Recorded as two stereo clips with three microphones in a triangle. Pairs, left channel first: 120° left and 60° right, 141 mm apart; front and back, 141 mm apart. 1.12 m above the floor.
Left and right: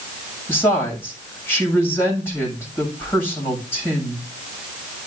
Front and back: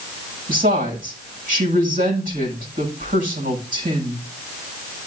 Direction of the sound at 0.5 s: 165° right.